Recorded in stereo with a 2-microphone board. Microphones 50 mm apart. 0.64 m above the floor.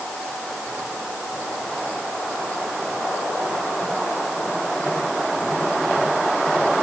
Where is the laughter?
No laughter in this recording.